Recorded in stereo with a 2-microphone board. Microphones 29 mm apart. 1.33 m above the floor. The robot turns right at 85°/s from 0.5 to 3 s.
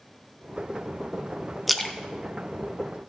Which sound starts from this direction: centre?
A splash, at 1.7 s.